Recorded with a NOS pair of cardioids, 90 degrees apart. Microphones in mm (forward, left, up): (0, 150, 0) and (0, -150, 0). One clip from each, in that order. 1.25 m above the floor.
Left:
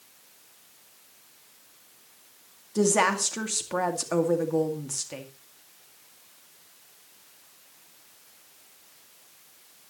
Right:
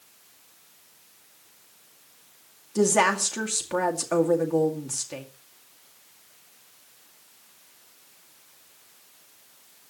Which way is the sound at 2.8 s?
5° right.